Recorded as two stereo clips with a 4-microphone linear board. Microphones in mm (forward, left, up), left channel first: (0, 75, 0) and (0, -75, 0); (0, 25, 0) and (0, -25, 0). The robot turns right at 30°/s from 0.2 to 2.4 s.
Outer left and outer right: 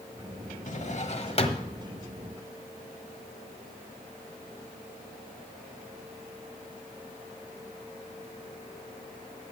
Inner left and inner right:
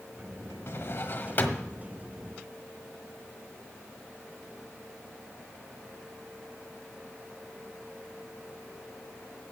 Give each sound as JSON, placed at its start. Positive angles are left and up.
{"t": 0.7, "sound": "a drawer", "side_deg": 55, "distance_m": 1.3}